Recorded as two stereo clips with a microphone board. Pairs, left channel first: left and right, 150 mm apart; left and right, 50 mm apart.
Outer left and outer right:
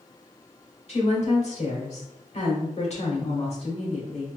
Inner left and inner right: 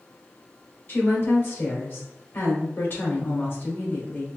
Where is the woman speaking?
50° left (ahead or behind), 1.4 m.